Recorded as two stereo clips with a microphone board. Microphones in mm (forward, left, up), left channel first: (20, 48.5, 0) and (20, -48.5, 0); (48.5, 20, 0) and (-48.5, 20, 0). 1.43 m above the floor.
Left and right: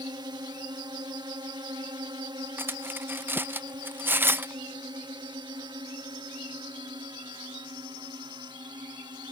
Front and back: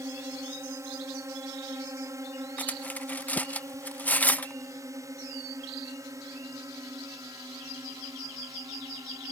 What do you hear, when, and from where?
0.0 s a drone: 125° right
2.6 s cutlery clinking: 50° right